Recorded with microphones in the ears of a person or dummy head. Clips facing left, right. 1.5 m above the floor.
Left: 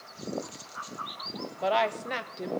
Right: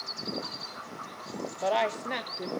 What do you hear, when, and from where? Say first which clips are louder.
1.6 s a woman speaking: left 1 dB; 5° right (ahead or behind), 0.9 m